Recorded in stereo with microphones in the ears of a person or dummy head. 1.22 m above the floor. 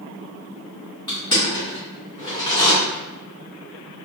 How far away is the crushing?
About 1.8 m.